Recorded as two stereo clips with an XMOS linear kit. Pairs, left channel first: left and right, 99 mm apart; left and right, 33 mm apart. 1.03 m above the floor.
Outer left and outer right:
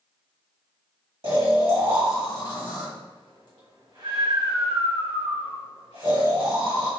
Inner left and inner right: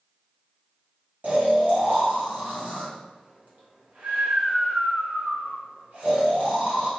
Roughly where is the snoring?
Right.